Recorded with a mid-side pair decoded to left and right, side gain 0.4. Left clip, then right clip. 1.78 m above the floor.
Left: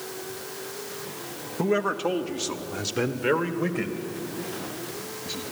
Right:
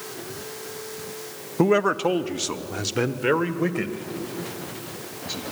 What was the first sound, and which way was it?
A man speaking, 55° right.